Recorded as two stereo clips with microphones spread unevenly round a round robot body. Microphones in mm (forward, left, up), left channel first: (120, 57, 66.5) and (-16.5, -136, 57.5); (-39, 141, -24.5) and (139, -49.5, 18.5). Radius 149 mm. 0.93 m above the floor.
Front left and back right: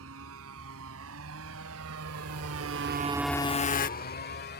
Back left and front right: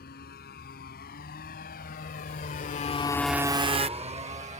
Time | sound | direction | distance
0.0 | a motorcycle | 165° right | ?